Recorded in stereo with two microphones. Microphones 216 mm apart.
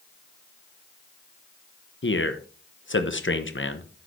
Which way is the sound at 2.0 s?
65° left (ahead or behind).